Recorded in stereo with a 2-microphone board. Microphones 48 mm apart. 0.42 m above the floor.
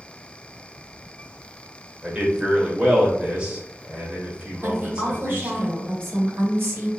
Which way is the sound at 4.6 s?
50° right (ahead or behind).